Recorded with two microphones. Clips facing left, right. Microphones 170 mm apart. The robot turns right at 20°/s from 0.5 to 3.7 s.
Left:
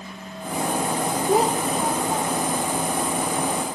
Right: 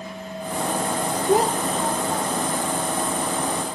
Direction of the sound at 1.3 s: Centre (ahead or behind).